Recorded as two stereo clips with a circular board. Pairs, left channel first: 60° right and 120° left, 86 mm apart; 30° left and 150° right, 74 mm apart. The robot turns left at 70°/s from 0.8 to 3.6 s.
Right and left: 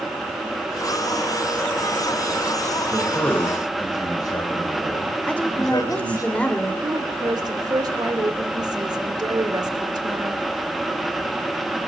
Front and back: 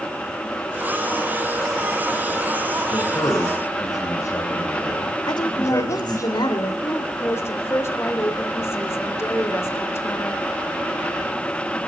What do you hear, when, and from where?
2.9 s a man speaking: 30° left, 3.5 m; by 6.3 s 20° right, 3.5 m
5.3 s a woman speaking: 15° left, 3.5 m
6.8 s a woman speaking: 85° left, 2.5 m